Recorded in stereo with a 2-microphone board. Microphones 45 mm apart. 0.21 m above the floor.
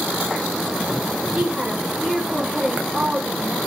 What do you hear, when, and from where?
1.3 s a woman speaking: 15° right (ahead or behind), 2.5 m